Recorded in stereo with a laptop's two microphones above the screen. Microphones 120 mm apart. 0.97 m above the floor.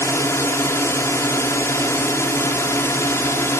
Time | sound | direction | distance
0.0 | a drone | 25° left (ahead or behind) | ?